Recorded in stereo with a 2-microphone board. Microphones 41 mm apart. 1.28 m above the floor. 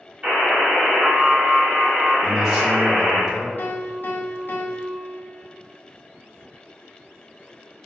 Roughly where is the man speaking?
Centre.